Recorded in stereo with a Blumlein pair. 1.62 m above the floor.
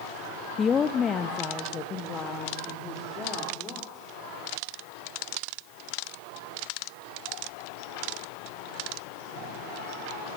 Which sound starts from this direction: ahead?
A woman speaking, at 0.6 s.